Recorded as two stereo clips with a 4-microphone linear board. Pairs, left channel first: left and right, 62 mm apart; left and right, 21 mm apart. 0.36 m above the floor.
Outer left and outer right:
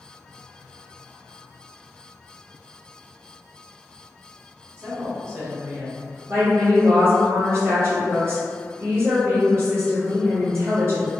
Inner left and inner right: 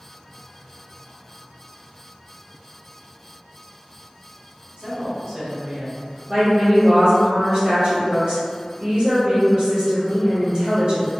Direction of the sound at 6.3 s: 45° right (ahead or behind).